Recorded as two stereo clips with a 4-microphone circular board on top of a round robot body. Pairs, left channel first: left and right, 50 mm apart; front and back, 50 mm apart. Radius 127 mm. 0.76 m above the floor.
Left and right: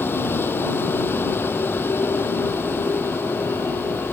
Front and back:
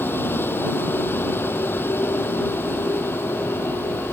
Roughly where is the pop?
I don't hear a pop.